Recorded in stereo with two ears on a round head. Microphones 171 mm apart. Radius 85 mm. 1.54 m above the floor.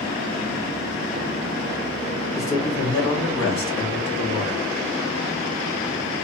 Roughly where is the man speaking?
Left.